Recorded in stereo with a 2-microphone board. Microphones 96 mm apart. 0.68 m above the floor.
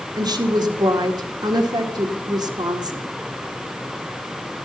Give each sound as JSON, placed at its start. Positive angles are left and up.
{"t": 0.2, "sound": "a woman speaking", "side_deg": -45, "distance_m": 1.9}